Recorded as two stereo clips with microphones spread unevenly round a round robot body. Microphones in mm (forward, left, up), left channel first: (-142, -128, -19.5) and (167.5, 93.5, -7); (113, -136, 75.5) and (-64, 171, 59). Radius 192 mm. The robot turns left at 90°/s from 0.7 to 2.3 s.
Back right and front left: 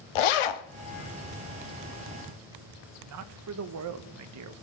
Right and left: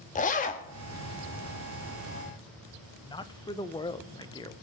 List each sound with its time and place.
0.1 s a zipper: 130° right, 1.0 m
3.0 s a man speaking: 15° left, 0.9 m